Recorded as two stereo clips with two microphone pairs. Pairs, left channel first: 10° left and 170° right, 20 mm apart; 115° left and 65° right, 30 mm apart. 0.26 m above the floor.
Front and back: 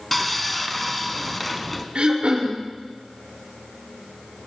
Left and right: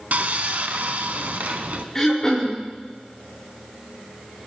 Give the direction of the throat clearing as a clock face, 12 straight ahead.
6 o'clock.